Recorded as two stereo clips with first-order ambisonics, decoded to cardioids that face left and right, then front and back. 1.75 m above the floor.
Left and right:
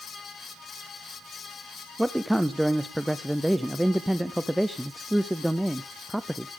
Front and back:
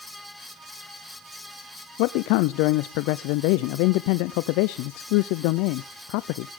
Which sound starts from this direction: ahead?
A man speaking, at 2.0 s.